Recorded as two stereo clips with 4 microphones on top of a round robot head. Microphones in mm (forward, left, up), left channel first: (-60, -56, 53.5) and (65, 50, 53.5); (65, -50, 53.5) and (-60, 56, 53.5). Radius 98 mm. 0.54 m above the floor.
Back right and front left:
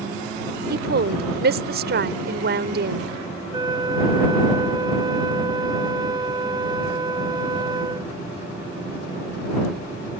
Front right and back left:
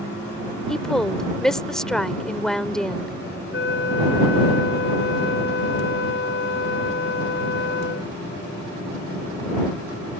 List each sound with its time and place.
0.7 s a woman speaking: 45° left
3.5 s a flute: 25° right